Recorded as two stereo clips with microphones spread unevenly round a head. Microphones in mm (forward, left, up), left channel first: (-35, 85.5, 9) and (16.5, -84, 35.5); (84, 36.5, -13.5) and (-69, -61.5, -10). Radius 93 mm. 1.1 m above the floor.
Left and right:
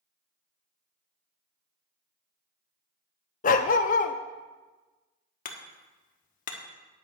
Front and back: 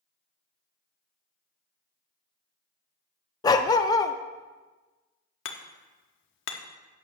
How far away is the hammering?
About 1.1 m.